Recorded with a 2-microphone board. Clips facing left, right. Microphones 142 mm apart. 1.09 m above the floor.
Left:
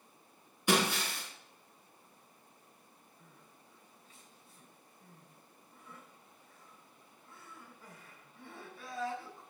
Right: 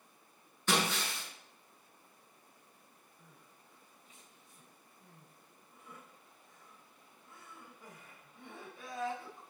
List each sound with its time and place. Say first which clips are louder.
0.7 s breaking glass: left 3 dB; 10° left (ahead or behind), 5.5 m
3.2 s crying: even; 20° right (ahead or behind), 3.5 m